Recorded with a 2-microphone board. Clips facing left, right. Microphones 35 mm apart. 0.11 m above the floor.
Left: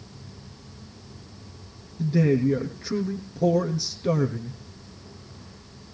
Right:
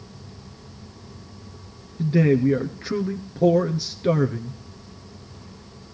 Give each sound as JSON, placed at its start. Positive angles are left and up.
{"t": 2.0, "sound": "a man speaking", "side_deg": -30, "distance_m": 1.3}